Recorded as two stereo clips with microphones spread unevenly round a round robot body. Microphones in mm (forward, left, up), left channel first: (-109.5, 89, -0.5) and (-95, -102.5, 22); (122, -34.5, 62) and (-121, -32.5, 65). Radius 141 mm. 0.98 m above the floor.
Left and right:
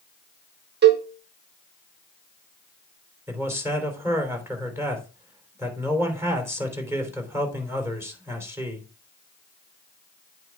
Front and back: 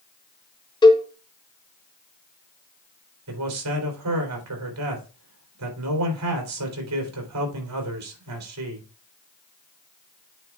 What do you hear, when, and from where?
0.8 s a cowbell: 70° right, 1.1 m
3.3 s a man speaking: 165° right, 3 m